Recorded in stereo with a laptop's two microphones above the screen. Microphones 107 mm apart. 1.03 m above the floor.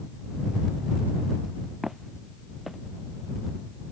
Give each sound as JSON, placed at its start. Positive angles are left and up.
{"t": 1.8, "sound": "footsteps", "side_deg": 0}